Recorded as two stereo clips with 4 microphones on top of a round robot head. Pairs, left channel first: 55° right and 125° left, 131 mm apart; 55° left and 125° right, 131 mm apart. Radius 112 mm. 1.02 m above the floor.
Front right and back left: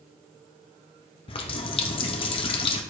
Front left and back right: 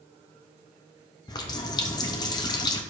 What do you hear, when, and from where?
1.3 s a running tap: 5° right, 0.6 m